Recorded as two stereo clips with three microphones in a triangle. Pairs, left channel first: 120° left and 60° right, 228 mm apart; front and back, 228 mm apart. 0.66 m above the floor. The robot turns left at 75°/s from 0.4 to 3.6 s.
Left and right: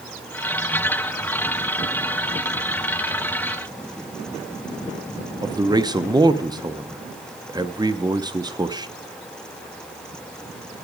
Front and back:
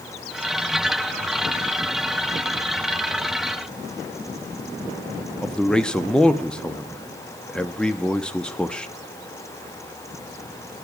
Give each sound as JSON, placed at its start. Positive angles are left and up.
{"t": 5.4, "sound": "a man speaking", "azimuth_deg": -75, "distance_m": 0.6}